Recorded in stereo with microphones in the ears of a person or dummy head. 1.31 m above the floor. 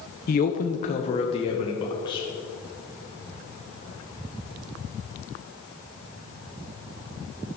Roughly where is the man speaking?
Left.